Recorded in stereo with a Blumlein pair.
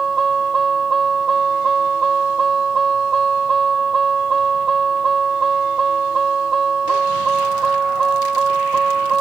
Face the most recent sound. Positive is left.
turn(degrees=-15)